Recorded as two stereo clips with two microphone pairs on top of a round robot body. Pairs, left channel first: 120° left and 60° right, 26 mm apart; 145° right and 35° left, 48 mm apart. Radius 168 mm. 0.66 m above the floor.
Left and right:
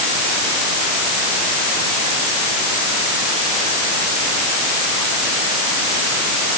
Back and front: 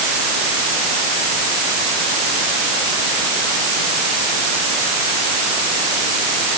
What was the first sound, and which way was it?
Only background noise.